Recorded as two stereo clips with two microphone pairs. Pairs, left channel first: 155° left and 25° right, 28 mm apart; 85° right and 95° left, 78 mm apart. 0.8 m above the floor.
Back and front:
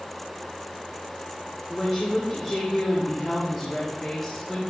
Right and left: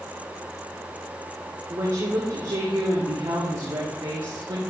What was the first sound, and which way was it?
A woman speaking, 95° left.